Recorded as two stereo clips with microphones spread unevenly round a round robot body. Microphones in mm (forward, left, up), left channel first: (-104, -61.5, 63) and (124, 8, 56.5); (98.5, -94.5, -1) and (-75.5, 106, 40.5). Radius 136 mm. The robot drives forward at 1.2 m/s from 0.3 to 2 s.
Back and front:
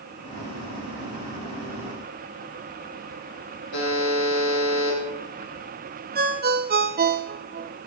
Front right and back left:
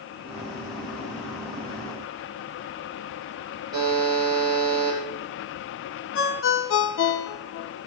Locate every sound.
3.7 s a buzzer: 155° right, 10 m
6.2 s a ringtone: 25° right, 1.0 m